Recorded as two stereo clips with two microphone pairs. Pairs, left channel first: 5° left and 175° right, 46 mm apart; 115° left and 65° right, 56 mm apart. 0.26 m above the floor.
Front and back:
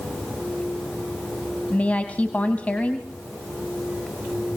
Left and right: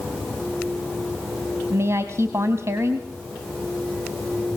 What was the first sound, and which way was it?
A woman speaking, 45° right.